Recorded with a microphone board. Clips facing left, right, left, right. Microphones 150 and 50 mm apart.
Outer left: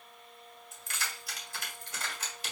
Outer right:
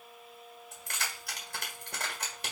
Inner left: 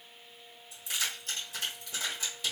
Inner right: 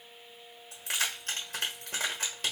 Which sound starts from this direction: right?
Keys jangling, at 0.7 s.